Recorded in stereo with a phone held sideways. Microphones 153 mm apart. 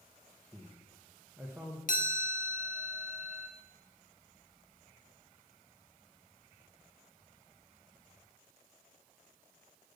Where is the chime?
60° left (ahead or behind), 0.6 m.